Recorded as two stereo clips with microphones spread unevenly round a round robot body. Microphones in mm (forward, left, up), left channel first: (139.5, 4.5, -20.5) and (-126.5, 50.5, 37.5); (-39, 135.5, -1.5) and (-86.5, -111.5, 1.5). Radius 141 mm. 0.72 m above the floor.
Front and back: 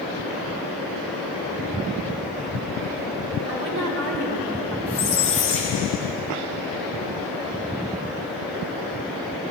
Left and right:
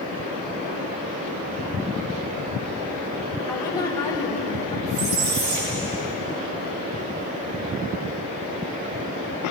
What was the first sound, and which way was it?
A woman speaking, 155° left.